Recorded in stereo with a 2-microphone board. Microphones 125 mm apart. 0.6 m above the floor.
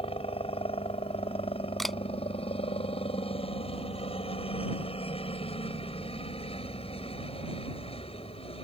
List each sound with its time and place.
0.0 s a helicopter: 50° left (ahead or behind)
1.8 s a camera shutter: 5° left (ahead or behind)